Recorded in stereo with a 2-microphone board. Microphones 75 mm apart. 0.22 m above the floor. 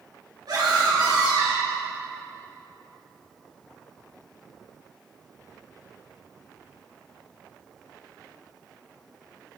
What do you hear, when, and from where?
0.5 s a scream: 60° right (ahead or behind), 3.5 m; by 1.8 s 55° right (ahead or behind), 2.5 m